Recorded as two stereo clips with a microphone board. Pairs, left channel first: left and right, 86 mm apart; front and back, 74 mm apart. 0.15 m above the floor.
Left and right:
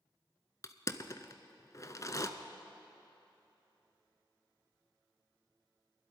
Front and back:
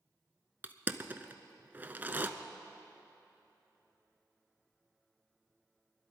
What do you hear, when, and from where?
0.6 s crushing: 125° left, 0.7 m